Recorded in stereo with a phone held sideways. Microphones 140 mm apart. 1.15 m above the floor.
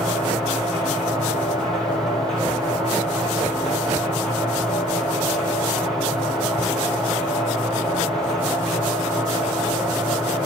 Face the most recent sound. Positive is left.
turn(degrees=5)  # may be behind; listen again after turning